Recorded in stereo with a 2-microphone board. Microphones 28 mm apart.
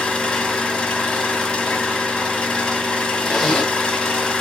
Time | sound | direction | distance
0.0 | an engine running | 35° left (ahead or behind) | 1.0 m
3.2 | a zipper | 30° left (ahead or behind) | 1.5 m